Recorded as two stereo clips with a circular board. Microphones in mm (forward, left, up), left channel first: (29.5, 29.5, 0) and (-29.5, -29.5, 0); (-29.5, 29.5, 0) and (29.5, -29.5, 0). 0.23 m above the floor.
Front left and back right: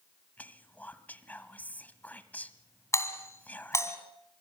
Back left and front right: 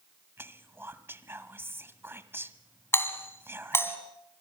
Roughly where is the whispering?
Ahead.